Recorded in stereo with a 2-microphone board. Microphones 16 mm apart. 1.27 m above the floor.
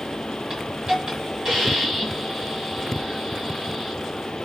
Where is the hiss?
40° right (ahead or behind), 1.8 m.